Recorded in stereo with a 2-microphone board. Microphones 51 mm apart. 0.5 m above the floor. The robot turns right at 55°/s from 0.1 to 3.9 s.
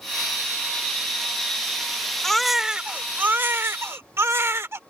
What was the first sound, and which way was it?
A baby crying, 170° left.